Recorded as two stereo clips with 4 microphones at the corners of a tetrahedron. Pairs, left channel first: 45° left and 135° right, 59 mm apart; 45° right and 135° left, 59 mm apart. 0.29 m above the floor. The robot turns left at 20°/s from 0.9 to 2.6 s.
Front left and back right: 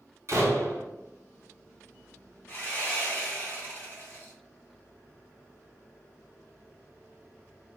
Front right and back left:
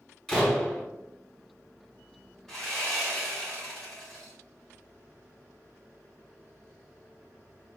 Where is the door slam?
125° right, 0.9 m.